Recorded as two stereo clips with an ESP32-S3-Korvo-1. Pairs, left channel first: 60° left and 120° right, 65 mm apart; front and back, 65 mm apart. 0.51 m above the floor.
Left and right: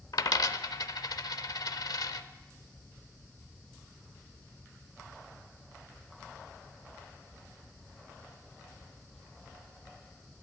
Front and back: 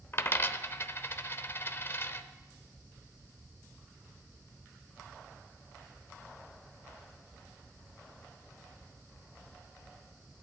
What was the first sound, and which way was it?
A dropped coin, 50° left.